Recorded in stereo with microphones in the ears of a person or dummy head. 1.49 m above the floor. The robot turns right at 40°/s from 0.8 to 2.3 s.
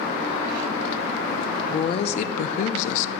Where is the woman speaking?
25° left (ahead or behind), 0.5 m; by 3.1 s 45° left (ahead or behind), 0.5 m.